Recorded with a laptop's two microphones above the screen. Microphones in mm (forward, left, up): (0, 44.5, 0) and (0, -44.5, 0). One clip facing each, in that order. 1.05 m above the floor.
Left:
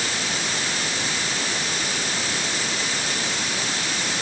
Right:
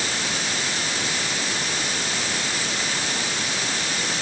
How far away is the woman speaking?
I don't hear a woman speaking.